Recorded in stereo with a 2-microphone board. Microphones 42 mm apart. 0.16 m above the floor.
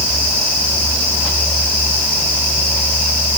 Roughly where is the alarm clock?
I don't hear an alarm clock.